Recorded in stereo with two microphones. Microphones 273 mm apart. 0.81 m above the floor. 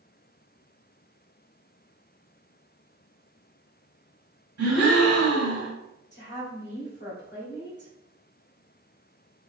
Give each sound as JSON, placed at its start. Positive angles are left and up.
{"t": 4.6, "sound": "a gasp", "side_deg": -60, "distance_m": 1.6}
{"t": 6.1, "sound": "a woman speaking", "side_deg": 40, "distance_m": 1.9}